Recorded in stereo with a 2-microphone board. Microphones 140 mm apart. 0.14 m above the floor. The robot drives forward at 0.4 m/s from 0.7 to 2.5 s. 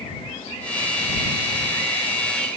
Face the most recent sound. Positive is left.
No sound to turn to.